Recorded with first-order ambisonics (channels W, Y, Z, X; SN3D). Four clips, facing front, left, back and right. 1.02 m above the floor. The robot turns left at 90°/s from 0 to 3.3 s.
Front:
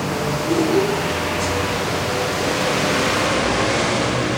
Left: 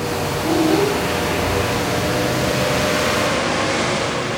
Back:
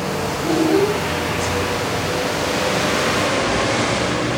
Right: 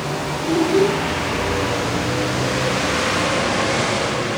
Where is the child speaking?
140° left, 4 m; by 0.9 s 90° left, 4 m.